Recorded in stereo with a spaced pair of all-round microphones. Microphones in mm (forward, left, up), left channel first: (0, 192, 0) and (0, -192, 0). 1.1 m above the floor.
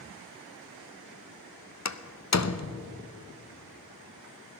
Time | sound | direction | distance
1.9 | a door slam | 45° left (ahead or behind) | 0.5 m